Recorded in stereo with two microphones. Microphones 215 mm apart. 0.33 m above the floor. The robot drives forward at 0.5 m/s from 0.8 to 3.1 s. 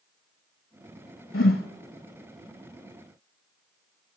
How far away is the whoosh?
About 0.8 m.